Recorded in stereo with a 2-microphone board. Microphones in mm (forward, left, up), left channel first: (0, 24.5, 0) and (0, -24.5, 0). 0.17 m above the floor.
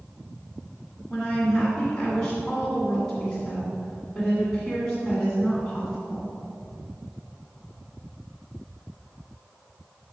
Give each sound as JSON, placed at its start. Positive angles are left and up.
{"t": 1.1, "sound": "a woman speaking", "side_deg": 15, "distance_m": 1.7}